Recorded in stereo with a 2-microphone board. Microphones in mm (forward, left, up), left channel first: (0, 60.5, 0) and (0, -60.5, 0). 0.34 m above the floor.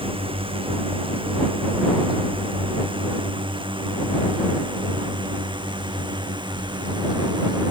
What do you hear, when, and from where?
0.0 s a drone: 45° right (ahead or behind); by 7.7 s 40° right (ahead or behind)